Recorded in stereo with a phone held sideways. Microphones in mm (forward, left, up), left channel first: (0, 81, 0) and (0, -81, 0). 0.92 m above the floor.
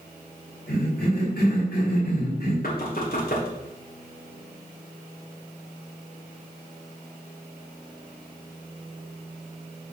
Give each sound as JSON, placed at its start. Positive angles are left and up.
{"t": 0.7, "sound": "a cough", "side_deg": 75, "distance_m": 3.5}
{"t": 2.6, "sound": "knocking", "side_deg": 65, "distance_m": 2.0}